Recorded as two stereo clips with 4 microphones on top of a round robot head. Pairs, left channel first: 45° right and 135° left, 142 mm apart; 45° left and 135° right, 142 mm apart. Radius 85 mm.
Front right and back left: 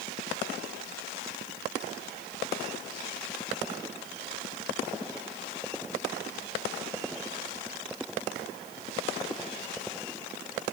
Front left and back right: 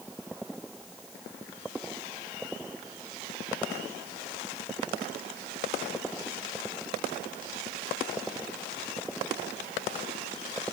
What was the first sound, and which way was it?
Only background noise.